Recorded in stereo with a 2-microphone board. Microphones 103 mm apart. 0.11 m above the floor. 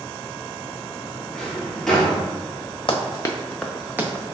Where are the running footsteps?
55° left (ahead or behind), 0.7 m; by 4.3 s 30° right (ahead or behind), 0.9 m.